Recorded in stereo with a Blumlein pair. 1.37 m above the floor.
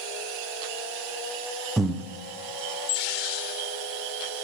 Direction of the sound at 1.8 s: 5° right.